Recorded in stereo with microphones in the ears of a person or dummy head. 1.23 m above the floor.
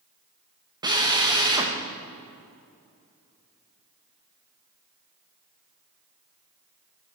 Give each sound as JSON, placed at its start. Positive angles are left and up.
{"t": 0.8, "sound": "a drill", "side_deg": -20, "distance_m": 1.2}